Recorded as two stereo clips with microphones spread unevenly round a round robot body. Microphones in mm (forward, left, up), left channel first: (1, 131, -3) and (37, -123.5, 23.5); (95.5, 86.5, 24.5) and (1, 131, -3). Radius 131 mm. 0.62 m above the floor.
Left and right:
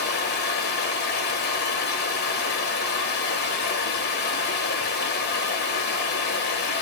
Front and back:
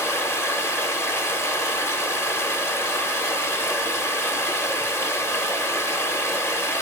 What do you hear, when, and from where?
0.0 s running water: 45° left, 0.9 m